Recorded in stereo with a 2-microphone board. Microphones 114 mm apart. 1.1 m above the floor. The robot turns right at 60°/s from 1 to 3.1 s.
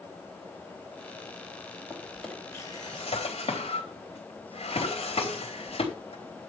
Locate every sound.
1.9 s a drawer: 15° right (ahead or behind), 3.5 m; by 6.5 s 55° left (ahead or behind), 3.5 m